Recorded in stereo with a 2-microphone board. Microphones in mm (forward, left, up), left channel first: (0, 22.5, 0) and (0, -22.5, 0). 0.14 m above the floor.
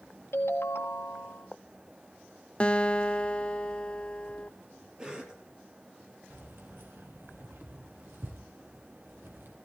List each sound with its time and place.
0.3 s a ringtone: 65° left (ahead or behind), 1.6 m
2.6 s a guitar: 20° left (ahead or behind), 0.6 m
5.0 s a cough: 20° right (ahead or behind), 3.5 m
6.3 s keys jangling: 55° right (ahead or behind), 3 m